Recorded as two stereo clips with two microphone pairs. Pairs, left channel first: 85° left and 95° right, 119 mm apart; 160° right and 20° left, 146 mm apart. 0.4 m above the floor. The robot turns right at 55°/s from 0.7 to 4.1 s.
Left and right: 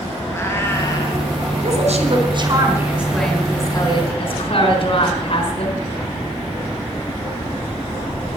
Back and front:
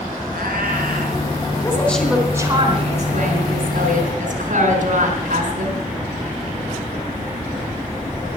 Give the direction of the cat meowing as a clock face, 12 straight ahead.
11 o'clock.